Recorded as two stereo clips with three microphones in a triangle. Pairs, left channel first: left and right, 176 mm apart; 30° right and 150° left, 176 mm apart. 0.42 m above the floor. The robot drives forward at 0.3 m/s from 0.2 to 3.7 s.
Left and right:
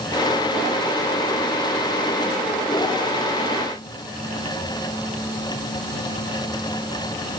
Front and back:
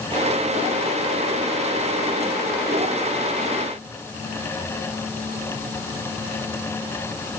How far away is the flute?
No flute in this recording.